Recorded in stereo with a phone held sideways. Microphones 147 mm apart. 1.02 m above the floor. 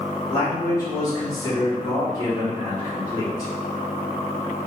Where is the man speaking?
25° left (ahead or behind), 1.4 m.